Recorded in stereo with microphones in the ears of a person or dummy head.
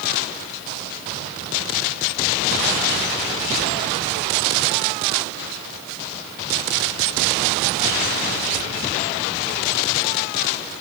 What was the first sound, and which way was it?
Only background noise.